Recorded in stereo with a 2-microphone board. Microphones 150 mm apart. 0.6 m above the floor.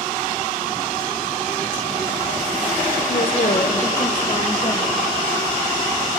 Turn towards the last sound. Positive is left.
turn(degrees=30)  # may be behind; listen again after turning